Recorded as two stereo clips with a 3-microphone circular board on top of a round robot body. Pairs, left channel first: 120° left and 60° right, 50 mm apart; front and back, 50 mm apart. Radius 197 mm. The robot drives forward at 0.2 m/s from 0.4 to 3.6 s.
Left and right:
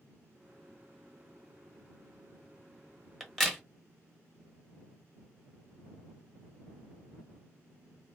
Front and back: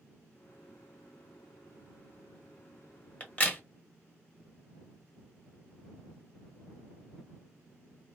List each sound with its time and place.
3.2 s a crack: 35° left, 1.3 m; by 3.6 s 40° left, 1.2 m